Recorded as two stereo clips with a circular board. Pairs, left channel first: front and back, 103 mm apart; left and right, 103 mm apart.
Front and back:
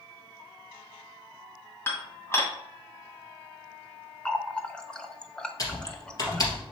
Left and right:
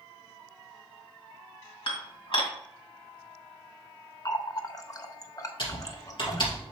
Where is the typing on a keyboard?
50° left, 2.5 m.